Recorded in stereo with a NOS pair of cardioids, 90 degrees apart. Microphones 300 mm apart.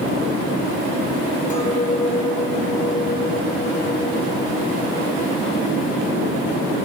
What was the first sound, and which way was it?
A clink, 25° left.